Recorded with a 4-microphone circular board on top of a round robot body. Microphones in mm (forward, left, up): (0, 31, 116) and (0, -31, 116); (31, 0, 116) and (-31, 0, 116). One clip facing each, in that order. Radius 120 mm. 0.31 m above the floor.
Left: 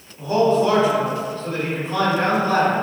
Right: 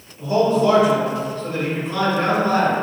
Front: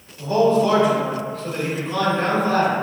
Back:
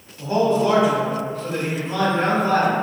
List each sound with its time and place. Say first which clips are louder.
0.2 s a man speaking: even, front 2 dB; 110° left, 1.5 m